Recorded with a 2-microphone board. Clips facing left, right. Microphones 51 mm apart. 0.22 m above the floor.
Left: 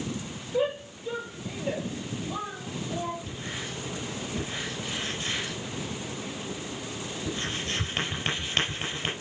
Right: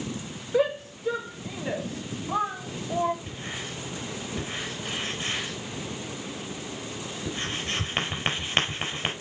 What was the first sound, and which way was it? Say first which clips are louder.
A shout: right 3 dB; 70° right (ahead or behind).